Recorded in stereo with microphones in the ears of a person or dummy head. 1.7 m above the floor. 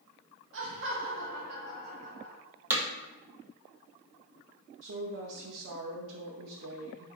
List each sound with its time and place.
0.5 s laughter: 65° right (ahead or behind), 0.6 m; by 2.4 s 55° right (ahead or behind), 2 m
2.7 s hammering: 10° right (ahead or behind), 0.6 m
4.8 s a woman speaking: 65° right (ahead or behind), 0.6 m